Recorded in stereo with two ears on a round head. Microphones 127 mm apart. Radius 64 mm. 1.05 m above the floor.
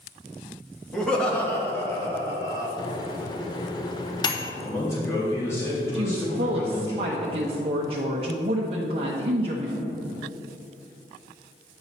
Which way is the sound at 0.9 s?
5° left (ahead or behind).